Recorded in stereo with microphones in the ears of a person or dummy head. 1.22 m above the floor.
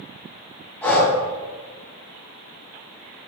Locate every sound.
0.8 s breathing: centre (ahead or behind), 2.5 m